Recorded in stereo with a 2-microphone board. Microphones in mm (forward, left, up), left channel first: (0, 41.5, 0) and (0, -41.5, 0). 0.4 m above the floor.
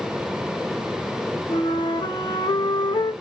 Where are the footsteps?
No footsteps in this recording.